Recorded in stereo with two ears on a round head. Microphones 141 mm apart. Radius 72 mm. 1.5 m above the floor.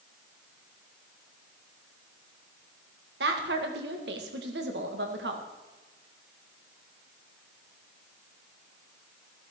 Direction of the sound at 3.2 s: 75° right (ahead or behind).